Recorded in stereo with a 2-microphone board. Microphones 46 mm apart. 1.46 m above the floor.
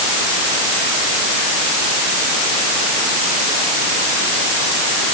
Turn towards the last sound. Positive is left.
No sound to turn to.